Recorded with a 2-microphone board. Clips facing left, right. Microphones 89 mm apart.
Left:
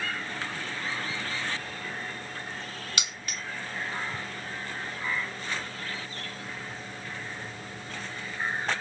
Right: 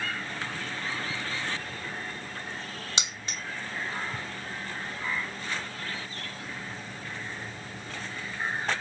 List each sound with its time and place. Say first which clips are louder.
3.0 s keys jangling: right 1 dB; 25° right (ahead or behind), 0.8 m